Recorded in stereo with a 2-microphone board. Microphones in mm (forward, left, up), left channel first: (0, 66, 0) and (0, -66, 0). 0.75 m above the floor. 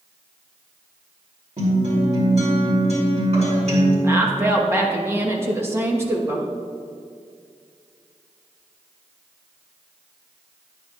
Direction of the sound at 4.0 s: 20° right (ahead or behind).